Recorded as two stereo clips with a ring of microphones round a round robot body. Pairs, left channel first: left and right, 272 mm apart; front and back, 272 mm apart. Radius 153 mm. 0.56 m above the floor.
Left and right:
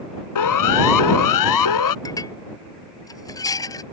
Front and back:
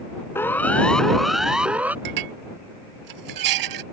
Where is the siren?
85° left; by 1.9 s 95° left.